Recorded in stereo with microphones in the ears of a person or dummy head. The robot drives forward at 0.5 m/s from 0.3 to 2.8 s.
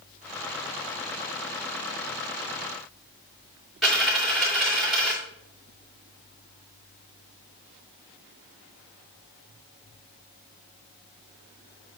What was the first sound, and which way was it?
A dropped coin, 5° right (ahead or behind).